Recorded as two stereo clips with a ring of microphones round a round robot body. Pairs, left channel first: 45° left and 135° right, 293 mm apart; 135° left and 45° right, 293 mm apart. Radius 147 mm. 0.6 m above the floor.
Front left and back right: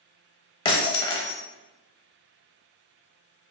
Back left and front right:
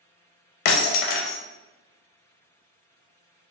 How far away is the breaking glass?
About 0.7 m.